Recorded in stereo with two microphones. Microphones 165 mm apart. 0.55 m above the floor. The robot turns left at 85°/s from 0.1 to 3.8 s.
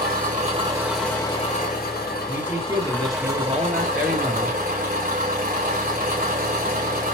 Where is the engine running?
105° right, 1.2 m; by 7.1 s 60° right, 1.2 m.